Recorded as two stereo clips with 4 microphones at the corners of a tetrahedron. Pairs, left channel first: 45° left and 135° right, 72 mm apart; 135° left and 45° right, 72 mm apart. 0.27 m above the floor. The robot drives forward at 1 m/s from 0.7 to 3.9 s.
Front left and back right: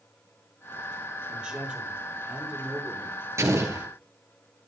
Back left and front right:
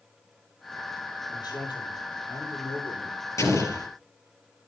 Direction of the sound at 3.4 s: 175° left.